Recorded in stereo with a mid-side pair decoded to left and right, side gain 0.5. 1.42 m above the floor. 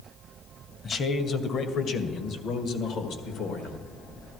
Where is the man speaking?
45° left, 1.3 m; by 3.8 s 75° left, 2.5 m.